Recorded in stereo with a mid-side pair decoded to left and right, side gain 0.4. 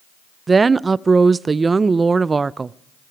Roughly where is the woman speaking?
Ahead right.